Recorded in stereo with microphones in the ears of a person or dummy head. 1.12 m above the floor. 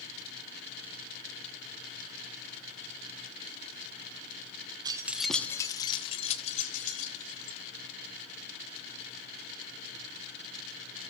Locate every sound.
4.8 s keys jangling: 30° right (ahead or behind), 0.8 m; by 7.6 s 45° left (ahead or behind), 2.5 m